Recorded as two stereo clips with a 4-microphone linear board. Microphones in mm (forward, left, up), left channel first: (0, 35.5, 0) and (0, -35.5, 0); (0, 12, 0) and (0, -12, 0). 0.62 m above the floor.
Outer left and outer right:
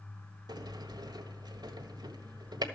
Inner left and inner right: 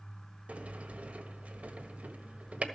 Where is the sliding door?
80° right, 1.5 m.